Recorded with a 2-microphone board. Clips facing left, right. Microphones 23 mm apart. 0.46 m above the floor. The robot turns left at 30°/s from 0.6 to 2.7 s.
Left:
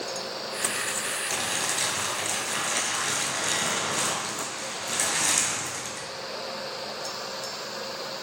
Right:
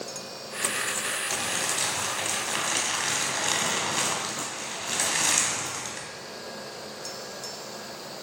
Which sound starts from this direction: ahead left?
Crumpling, at 1.3 s.